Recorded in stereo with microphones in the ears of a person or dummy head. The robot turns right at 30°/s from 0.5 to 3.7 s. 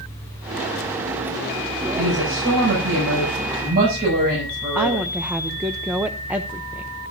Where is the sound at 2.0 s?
105° right, 6.5 m; by 5.0 s 55° right, 6.5 m.